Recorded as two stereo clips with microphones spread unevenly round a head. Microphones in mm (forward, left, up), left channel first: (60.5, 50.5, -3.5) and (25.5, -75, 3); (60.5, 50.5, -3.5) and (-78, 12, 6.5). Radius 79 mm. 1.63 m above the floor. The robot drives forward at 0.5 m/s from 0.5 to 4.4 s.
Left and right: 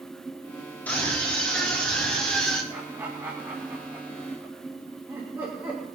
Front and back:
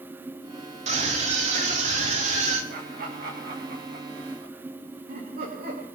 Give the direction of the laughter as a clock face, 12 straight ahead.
6 o'clock.